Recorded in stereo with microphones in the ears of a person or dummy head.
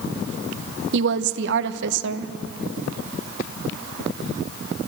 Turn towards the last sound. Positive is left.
turn(degrees=-65)  # may be behind; listen again after turning